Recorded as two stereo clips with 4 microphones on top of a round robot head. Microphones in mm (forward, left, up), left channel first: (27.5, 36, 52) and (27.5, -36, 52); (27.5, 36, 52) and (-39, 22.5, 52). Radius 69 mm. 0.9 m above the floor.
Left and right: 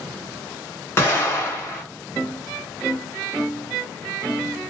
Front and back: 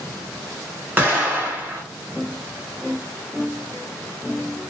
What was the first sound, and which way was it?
An explosion, 135° left.